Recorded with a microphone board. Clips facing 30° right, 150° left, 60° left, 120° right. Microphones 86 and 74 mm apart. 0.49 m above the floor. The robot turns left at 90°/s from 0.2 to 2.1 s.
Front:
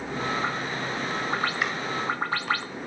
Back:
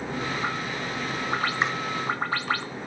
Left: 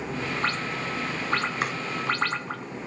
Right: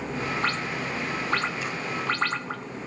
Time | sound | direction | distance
1.6 | chopping | 90° left | 3.5 m